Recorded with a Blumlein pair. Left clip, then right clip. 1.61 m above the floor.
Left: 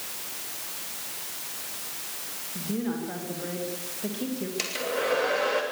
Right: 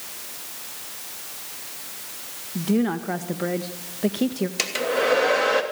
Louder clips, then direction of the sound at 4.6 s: Right 6 dB; 70° right.